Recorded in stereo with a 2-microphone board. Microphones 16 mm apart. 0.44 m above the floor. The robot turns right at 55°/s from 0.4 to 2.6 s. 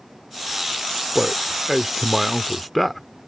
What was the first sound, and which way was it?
A man speaking, 25° right (ahead or behind).